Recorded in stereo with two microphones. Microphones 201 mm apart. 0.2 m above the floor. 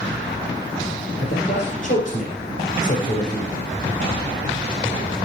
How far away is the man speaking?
About 4.5 m.